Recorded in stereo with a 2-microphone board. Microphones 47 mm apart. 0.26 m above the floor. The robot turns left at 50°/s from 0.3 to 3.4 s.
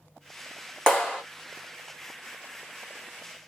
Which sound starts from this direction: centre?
A clap, at 0.9 s.